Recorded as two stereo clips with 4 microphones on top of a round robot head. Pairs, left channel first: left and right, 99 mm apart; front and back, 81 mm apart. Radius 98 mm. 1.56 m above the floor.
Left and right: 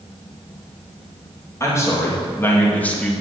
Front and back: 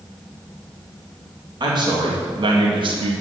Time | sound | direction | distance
1.6 | a man speaking | 150° left | 3 m